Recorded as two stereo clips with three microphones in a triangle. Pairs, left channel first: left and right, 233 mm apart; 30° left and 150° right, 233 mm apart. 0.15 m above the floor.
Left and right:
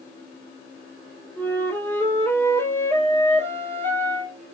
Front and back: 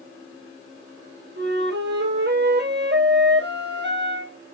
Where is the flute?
170° left, 3.5 m.